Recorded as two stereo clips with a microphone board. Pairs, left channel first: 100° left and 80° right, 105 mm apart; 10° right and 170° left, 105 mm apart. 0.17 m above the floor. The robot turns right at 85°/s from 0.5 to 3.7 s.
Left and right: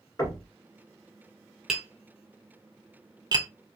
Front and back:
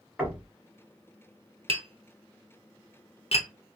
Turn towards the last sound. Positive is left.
turn(degrees=5)